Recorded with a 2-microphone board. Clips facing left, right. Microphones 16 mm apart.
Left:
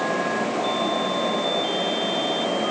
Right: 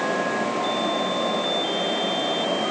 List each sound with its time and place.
Only background noise.